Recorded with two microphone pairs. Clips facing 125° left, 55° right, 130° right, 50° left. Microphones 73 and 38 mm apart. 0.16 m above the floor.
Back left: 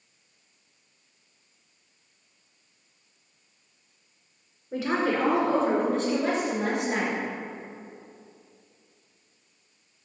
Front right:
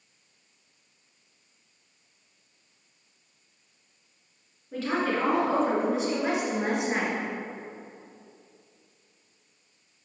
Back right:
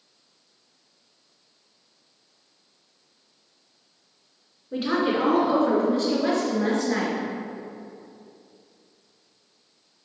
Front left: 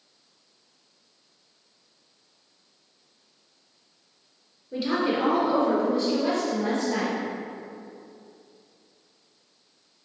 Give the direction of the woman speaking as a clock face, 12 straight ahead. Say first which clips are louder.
Back left 2 dB, back right 2 dB; 5 o'clock.